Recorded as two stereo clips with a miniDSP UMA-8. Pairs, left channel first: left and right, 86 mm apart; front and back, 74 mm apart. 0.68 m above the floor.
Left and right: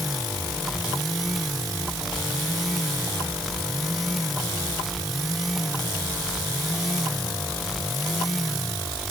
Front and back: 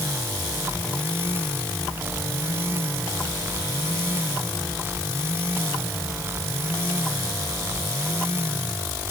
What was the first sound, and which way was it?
Only background noise.